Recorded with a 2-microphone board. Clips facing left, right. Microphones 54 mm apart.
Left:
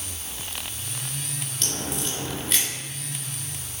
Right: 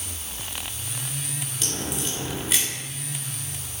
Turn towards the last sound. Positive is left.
turn(degrees=0)  # may be behind; listen again after turning